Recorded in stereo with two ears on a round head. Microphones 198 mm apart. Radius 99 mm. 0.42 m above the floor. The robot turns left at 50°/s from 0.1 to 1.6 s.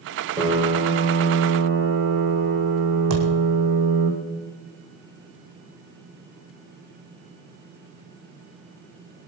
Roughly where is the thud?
Right.